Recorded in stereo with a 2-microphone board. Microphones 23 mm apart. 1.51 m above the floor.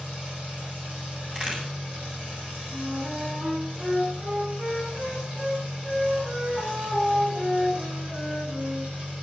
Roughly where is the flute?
Right.